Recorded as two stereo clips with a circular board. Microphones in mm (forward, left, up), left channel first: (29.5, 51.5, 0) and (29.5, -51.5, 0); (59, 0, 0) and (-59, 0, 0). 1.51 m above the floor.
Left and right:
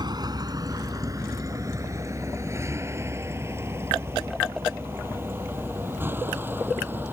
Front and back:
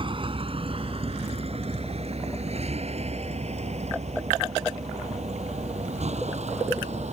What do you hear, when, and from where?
0.0 s a vehicle: 135° right; by 7.1 s 160° right